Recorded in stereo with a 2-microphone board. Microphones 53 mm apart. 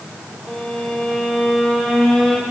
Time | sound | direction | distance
0.5 | a violin | 10° left (ahead or behind) | 3 m